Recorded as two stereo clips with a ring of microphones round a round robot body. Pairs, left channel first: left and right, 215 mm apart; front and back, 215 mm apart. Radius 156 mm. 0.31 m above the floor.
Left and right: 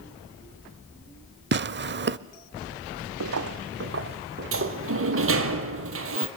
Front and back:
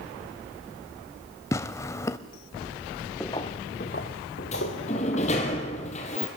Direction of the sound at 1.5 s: 75° right.